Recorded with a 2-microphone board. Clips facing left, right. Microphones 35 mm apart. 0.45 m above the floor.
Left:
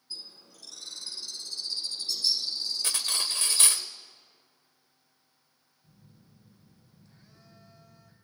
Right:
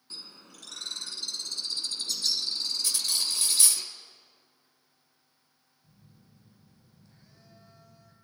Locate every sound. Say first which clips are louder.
0.1 s a bird: left 1 dB; 80° right, 1.6 m
2.8 s cutlery clinking: left 1 dB; 50° left (ahead or behind), 1.1 m
5.8 s a phone buzzing: left 1 dB; centre (ahead or behind), 3.5 m